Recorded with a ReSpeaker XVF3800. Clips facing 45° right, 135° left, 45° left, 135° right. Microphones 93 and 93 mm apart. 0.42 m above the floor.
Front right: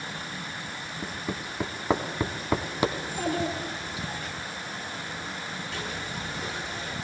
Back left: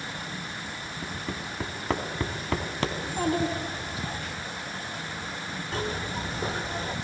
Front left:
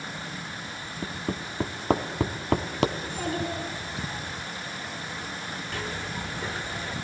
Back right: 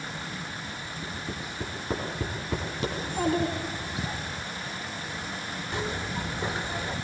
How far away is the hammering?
About 1.1 m.